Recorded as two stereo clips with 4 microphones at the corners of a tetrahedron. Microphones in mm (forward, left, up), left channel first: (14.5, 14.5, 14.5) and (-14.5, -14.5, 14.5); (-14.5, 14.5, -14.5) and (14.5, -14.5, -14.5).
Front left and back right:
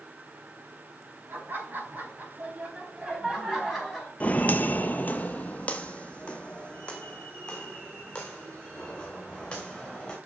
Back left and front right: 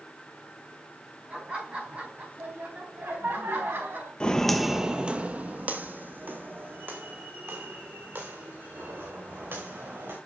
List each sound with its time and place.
1.3 s laughter: 105° right, 4.5 m; by 4.1 s 45° right, 4.5 m
4.2 s footsteps: 80° left, 0.7 m; by 10.2 s 25° right, 4.5 m